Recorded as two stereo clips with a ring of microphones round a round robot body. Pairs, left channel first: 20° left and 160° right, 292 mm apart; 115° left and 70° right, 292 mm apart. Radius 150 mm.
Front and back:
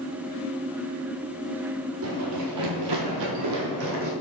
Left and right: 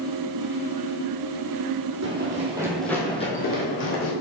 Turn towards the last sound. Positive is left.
turn(degrees=160)